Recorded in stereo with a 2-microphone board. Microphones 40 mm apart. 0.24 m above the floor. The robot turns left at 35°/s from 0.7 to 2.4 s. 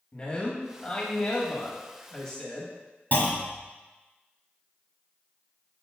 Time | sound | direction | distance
0.1 | a man speaking | 25° left (ahead or behind) | 1.1 m
3.1 | a clunk | 45° left (ahead or behind) | 1.2 m